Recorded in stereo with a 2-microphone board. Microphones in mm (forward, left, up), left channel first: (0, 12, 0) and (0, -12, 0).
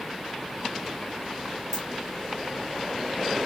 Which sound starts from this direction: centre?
A dropped coin, at 1.7 s.